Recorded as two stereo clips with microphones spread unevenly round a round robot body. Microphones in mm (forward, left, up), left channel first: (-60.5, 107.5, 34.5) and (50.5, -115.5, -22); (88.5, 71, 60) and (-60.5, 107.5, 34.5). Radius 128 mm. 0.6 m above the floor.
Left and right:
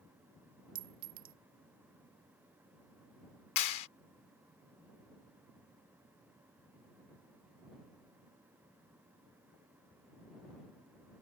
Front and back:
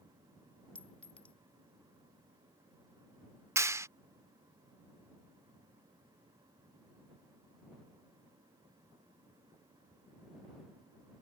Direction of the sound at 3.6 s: 95° left.